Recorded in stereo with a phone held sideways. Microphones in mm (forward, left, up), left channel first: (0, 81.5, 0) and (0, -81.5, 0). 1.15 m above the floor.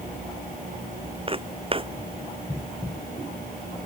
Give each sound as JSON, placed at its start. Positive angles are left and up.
{"t": 1.3, "sound": "footsteps", "side_deg": -35}